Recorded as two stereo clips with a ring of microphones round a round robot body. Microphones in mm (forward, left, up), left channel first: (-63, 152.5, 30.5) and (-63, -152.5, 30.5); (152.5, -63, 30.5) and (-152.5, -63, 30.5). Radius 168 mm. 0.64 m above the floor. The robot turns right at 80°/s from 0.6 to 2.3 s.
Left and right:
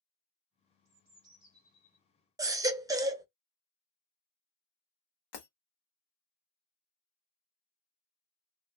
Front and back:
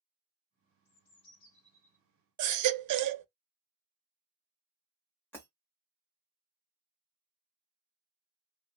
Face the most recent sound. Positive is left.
turn(degrees=85)